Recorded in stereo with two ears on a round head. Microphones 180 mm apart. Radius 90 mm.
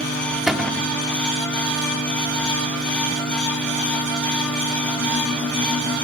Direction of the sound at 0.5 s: Centre (ahead or behind).